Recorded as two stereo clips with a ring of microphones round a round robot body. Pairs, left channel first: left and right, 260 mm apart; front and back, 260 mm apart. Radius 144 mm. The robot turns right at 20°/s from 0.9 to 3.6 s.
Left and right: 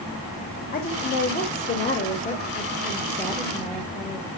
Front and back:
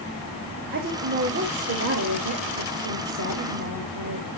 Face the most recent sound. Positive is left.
turn(degrees=-170)